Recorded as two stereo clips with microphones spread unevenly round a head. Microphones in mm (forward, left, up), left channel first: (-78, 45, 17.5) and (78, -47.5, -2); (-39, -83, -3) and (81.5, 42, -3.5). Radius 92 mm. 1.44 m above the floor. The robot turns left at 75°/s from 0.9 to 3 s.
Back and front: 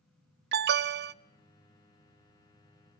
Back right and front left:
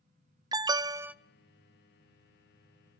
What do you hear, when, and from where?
0.5 s an alarm: 20° right, 0.7 m; by 1.1 s 40° right, 0.7 m